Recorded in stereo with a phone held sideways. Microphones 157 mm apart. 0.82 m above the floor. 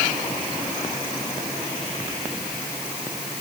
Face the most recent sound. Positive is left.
No sound to turn to.